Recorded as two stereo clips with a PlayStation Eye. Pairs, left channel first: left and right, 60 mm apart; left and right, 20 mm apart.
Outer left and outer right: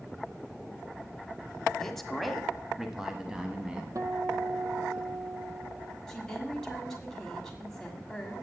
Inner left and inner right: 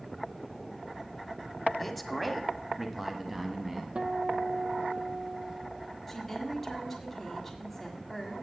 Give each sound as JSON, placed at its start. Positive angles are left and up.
{"t": 1.8, "sound": "a man speaking", "side_deg": 5, "distance_m": 1.1}
{"t": 4.0, "sound": "a guitar", "side_deg": -65, "distance_m": 1.0}
{"t": 6.1, "sound": "a woman speaking", "side_deg": 10, "distance_m": 1.5}